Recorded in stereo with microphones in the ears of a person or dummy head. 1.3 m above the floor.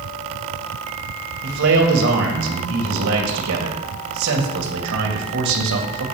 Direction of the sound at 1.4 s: 70° right (ahead or behind).